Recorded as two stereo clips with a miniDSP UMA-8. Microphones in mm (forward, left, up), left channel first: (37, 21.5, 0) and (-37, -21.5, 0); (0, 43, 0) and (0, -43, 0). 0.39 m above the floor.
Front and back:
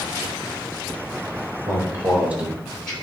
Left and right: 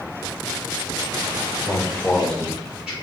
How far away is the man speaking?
About 1.6 m.